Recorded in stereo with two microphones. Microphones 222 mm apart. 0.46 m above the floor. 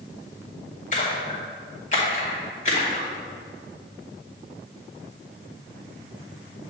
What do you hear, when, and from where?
0.9 s a splash: 35° left (ahead or behind), 2 m